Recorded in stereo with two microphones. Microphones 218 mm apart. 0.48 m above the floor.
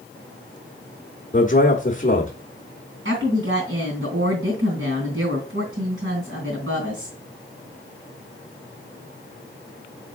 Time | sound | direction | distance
1.3 | a man speaking | 35° left (ahead or behind) | 0.8 m
3.0 | a woman speaking | 65° right (ahead or behind) | 3.5 m